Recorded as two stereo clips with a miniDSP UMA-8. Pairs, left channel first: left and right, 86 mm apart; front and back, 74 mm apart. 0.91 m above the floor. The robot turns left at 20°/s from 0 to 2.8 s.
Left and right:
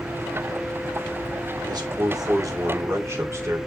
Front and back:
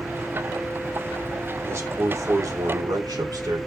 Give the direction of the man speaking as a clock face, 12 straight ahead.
4 o'clock.